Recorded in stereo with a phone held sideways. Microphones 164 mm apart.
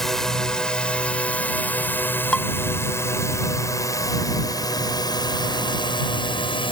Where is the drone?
Centre (ahead or behind); by 6.7 s 30° left (ahead or behind).